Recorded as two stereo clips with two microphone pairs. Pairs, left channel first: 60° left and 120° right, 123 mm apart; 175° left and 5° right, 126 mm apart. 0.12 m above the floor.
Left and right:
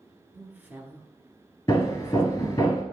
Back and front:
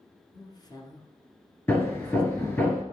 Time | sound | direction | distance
0.3 | a woman speaking | straight behind | 1.3 m
1.7 | hammering | 115° left | 2.0 m